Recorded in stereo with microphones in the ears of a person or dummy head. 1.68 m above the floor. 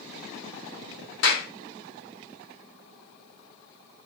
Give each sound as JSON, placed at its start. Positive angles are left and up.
{"t": 1.2, "sound": "a clap", "side_deg": 60, "distance_m": 1.5}